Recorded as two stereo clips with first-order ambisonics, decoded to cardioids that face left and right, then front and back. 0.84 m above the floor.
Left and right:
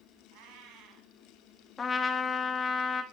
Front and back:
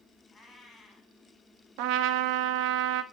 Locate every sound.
0.3 s a cat meowing: 80° right, 1.7 m
1.8 s a trumpet: 165° left, 0.7 m